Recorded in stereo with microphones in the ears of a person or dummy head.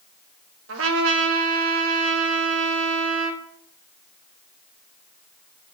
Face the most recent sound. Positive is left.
turn(degrees=-75)  # may be behind; listen again after turning